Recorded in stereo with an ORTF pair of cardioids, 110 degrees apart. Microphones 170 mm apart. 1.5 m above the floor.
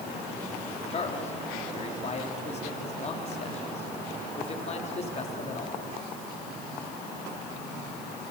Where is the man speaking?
40° left, 4 m.